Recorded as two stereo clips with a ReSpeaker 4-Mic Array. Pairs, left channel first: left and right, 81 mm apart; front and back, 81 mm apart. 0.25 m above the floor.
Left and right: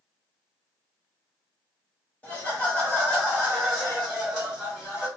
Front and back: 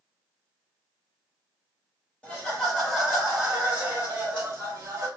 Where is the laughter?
50° left, 1.7 m; by 5.1 s 170° right, 1.9 m.